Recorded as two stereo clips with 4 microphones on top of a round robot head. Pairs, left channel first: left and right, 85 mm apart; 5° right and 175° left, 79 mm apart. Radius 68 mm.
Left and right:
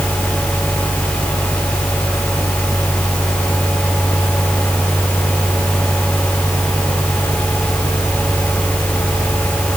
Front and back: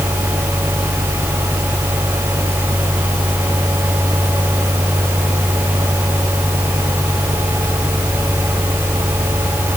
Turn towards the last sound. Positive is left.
No sound to turn to.